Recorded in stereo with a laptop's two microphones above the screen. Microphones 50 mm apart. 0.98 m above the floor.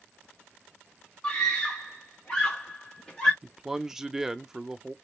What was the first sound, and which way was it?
A scream, 10° left (ahead or behind).